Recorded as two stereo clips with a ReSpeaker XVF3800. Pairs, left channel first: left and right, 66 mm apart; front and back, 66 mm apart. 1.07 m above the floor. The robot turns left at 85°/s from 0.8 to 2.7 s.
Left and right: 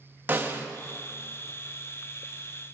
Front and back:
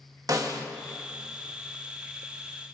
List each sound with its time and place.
0.3 s a snare drum: 150° right, 1.5 m